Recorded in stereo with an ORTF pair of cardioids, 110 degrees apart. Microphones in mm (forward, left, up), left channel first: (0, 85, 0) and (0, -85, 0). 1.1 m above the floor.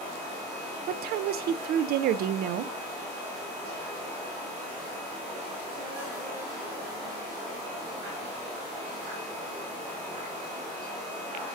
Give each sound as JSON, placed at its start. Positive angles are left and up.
{"t": 0.9, "sound": "a woman speaking", "azimuth_deg": -70, "distance_m": 0.6}